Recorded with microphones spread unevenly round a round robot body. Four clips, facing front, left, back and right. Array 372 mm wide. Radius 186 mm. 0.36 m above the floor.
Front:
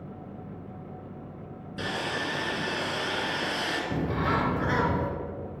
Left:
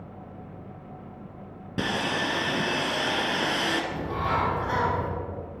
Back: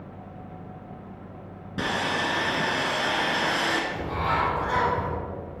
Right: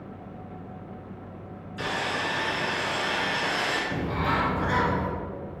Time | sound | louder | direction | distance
1.8 | sawing | left 2 dB, back 5 dB | 115° left | 1.1 m
3.9 | a bird | right 1 dB, back 1 dB | 30° right | 1.1 m